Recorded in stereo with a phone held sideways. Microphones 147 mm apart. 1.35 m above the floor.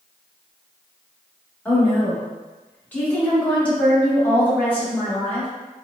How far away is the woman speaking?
About 1.7 m.